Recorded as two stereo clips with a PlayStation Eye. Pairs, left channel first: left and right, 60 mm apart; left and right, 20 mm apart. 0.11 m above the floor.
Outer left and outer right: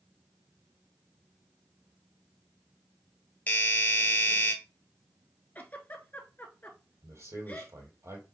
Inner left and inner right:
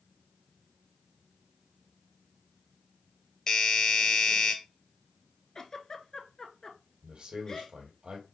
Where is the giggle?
30° left (ahead or behind), 0.9 m.